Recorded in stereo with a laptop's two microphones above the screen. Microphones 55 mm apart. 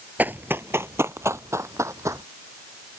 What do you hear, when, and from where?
0.2 s running footsteps: 35° right (ahead or behind); by 2.2 s 70° right (ahead or behind)